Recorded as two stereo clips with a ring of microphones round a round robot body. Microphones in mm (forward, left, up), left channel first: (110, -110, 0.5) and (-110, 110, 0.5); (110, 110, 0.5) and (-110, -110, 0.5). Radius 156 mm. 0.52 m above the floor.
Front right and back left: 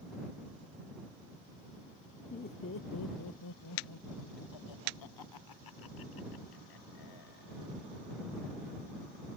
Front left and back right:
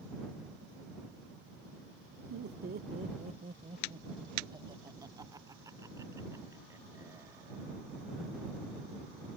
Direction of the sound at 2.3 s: 105° right.